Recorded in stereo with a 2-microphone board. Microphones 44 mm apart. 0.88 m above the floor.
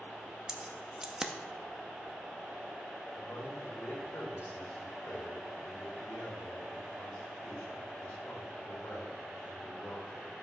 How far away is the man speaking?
About 2.5 m.